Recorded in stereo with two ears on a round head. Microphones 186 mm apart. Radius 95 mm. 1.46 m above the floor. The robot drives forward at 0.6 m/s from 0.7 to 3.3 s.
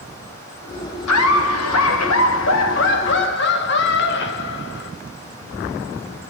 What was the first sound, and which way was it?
Laughter, 75° left (ahead or behind).